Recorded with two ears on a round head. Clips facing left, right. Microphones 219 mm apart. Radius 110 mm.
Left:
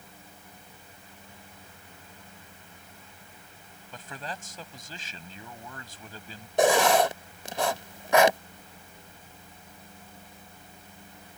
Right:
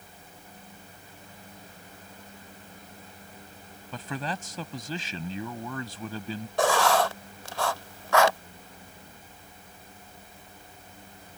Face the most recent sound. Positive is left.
turn(degrees=15)  # may be behind; listen again after turning